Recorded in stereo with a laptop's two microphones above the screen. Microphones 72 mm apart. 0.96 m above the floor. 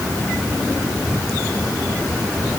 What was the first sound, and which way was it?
Only background noise.